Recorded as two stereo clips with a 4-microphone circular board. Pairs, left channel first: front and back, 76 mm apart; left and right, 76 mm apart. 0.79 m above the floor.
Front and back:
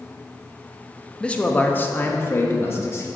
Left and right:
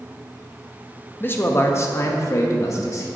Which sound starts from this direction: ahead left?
A man speaking, at 1.2 s.